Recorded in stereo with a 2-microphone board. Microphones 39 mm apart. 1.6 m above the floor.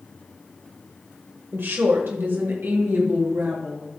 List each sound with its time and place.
1.5 s a woman speaking: 65° right (ahead or behind), 1.2 m; by 3.9 s 70° right (ahead or behind), 3 m